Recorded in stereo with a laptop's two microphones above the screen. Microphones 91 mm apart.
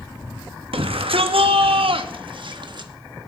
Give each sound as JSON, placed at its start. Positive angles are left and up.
{"t": 0.7, "sound": "a shout", "side_deg": -80, "distance_m": 1.3}